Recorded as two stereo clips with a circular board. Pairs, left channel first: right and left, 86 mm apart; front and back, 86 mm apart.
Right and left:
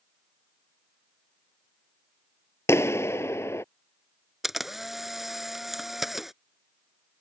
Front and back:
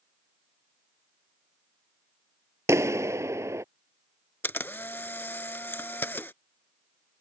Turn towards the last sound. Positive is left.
turn(degrees=10)